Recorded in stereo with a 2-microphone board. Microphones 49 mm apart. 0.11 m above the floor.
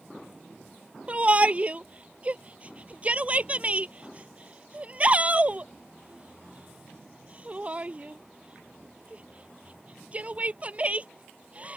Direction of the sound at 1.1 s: 30° right (ahead or behind).